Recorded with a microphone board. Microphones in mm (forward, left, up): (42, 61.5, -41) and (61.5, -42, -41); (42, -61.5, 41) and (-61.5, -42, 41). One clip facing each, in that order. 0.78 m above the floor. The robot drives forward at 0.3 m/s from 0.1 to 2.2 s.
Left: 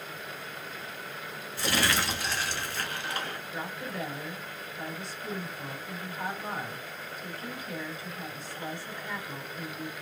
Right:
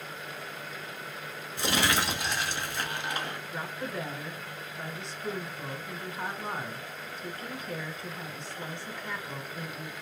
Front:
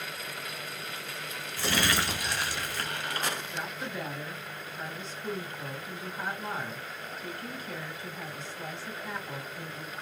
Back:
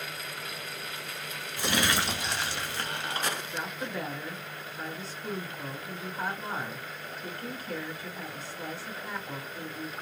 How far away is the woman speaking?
About 3.5 m.